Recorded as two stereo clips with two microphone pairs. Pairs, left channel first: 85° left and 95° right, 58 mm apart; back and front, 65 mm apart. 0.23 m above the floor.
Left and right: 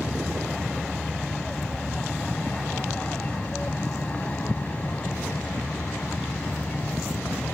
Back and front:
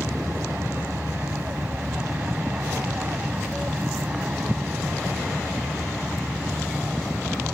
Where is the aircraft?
Straight ahead; by 7.5 s 70° left.